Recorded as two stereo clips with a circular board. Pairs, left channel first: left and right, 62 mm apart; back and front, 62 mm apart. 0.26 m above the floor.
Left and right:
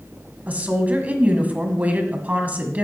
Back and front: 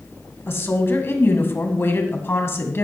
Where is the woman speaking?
145° right, 1.7 m.